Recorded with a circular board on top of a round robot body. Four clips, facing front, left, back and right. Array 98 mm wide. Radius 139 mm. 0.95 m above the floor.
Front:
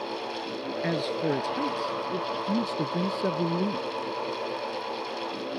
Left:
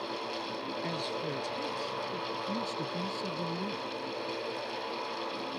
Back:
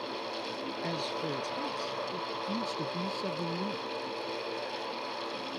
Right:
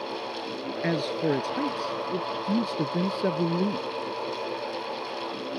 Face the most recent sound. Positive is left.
turn(degrees=-60)